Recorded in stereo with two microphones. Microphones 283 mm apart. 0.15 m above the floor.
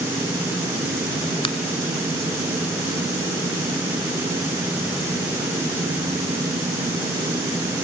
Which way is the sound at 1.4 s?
20° left (ahead or behind).